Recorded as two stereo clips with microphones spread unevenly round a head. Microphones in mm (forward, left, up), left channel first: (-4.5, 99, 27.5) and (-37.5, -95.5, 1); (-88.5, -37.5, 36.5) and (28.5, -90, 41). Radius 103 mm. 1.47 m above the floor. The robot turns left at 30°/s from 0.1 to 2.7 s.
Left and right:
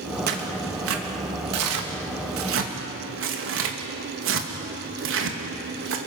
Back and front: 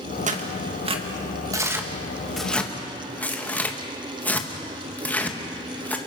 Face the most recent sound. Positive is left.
turn(degrees=-125)